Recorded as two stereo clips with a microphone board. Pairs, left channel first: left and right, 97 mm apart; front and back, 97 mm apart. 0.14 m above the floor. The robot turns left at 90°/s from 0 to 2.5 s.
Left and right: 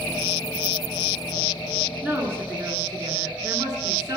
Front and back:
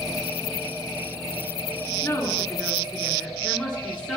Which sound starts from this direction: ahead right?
A woman speaking, at 2.0 s.